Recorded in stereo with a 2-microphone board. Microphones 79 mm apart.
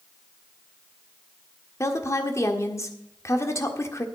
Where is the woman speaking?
35° left (ahead or behind), 1.5 m.